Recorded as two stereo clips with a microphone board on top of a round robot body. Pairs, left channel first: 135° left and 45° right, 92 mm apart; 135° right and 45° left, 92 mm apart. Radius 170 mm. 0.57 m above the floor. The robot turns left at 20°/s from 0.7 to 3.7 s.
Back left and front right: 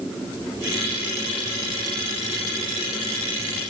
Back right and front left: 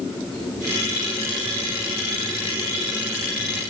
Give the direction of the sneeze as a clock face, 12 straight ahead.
No sneeze in this recording.